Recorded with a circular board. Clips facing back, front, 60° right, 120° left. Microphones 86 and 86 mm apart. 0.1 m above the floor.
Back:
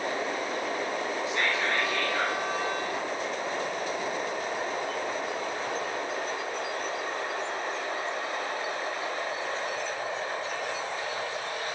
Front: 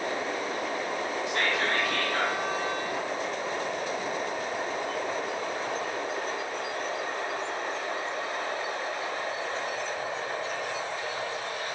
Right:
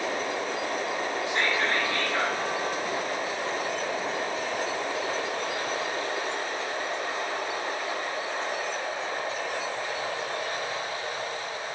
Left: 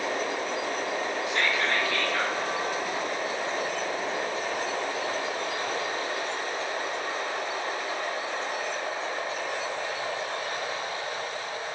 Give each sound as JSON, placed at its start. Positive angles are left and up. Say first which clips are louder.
{"t": 1.3, "sound": "whispering", "louder": "front 1 dB, right 1 dB", "azimuth_deg": 0, "distance_m": 3.5}